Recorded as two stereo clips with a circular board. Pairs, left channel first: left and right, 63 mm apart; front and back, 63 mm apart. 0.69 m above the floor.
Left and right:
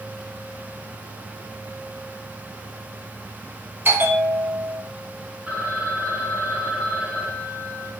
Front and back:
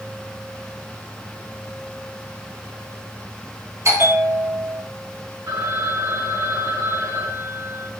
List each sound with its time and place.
3.9 s a bell: 145° right, 3 m
5.5 s a phone ringing: 165° right, 5 m